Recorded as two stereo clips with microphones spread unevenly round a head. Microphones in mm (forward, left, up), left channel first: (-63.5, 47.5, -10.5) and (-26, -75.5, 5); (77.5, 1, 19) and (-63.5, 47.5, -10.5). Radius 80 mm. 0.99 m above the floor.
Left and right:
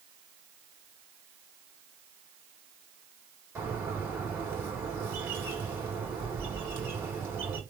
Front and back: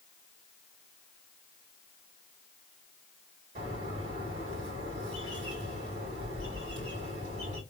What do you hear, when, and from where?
3.5 s a bird: 150° right, 2.5 m